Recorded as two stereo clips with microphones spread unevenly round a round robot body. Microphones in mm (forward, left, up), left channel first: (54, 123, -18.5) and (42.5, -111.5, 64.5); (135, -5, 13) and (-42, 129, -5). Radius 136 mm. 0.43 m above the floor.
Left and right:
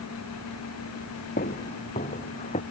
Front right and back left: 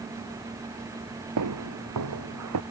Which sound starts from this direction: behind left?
Footsteps, at 1.4 s.